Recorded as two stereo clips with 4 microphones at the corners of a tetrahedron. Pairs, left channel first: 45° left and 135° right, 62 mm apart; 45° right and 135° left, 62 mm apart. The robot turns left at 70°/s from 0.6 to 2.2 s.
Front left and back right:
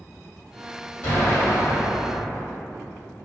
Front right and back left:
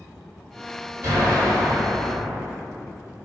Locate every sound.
1.0 s an explosion: 95° left, 1.4 m; by 2.5 s 10° left, 1.4 m